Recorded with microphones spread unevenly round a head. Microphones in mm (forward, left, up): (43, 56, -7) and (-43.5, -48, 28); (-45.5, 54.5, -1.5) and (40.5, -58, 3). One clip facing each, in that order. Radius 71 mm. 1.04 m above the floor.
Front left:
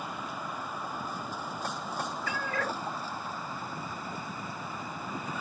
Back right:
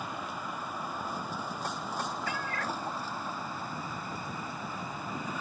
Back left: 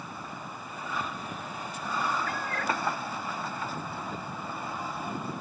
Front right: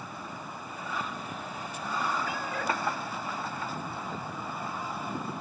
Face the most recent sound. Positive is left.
turn(degrees=30)